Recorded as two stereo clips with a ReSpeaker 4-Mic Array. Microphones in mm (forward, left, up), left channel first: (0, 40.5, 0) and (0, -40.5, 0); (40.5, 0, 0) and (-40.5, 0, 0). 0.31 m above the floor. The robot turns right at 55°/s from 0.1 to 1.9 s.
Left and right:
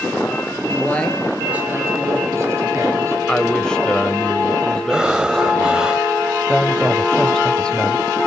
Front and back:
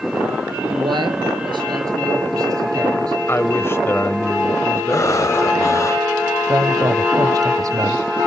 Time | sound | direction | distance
0.7 | a man speaking | 150° left | 7 m
3.3 | a man speaking | 20° left | 1.5 m
4.9 | breathing | 15° right | 1.3 m
6.5 | a woman speaking | 170° left | 1.3 m